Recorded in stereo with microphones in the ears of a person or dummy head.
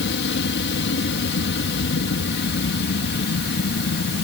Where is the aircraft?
60° left (ahead or behind); by 4.2 s 55° left (ahead or behind).